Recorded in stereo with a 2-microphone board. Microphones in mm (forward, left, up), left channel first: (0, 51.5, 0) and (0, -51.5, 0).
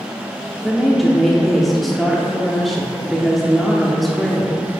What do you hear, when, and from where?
0.6 s a woman speaking: centre (ahead or behind), 0.6 m